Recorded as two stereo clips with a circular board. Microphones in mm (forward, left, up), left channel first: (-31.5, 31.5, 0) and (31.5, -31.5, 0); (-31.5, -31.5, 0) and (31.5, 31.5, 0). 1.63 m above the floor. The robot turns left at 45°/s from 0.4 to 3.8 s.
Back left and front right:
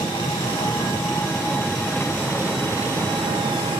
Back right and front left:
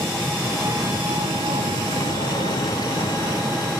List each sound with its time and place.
0.0 s an engine running: 110° left, 2.5 m; by 3.8 s 40° right, 2.5 m